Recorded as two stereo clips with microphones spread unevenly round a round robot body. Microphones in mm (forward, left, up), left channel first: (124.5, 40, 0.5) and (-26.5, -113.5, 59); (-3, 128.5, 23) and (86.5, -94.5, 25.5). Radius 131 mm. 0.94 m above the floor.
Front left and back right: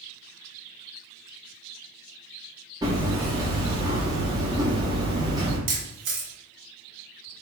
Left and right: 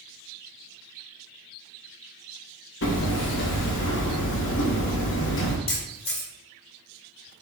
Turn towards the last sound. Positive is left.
turn(degrees=180)